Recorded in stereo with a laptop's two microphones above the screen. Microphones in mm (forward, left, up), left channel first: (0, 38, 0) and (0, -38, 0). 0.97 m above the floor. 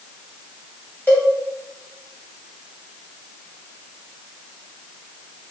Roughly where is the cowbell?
Left.